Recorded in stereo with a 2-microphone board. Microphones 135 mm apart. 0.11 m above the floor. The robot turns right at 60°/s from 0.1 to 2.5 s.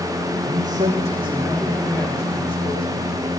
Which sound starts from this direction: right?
A man speaking, at 0.4 s.